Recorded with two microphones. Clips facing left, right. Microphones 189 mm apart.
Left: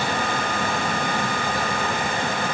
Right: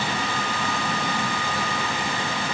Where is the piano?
I don't hear a piano.